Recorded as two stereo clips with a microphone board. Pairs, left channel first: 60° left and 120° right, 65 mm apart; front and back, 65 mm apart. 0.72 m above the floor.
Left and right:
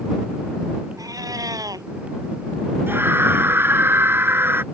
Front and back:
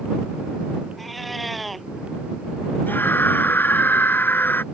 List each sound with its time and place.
1.0 s a cat meowing: 90° right
2.9 s a scream: 60° right